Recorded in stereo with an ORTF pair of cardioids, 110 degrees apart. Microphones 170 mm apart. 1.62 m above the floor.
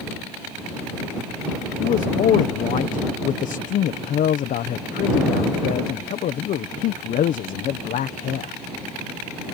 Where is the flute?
No flute in this recording.